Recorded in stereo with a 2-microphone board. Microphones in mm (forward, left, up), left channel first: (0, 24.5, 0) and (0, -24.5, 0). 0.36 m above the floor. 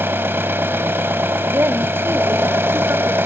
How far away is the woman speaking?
About 1.8 m.